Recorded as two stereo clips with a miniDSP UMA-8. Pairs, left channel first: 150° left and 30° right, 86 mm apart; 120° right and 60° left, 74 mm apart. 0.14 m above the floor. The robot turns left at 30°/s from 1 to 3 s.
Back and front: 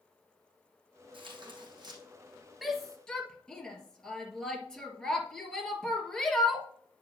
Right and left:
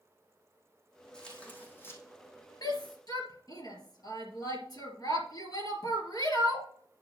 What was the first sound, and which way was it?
Tearing paper, 40° right.